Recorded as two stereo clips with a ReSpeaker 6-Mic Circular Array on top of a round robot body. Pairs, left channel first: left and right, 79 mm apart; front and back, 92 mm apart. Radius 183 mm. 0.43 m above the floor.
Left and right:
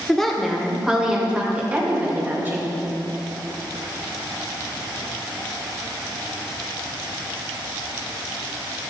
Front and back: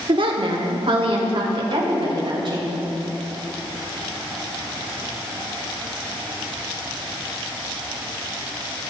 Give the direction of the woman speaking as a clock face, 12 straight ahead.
6 o'clock.